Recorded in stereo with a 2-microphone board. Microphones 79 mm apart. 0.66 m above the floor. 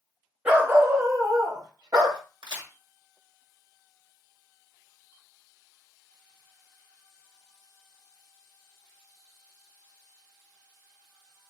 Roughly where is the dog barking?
Centre.